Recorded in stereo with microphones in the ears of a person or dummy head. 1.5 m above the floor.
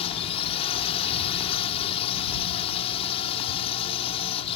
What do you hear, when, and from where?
0.0 s a drone: 30° left (ahead or behind)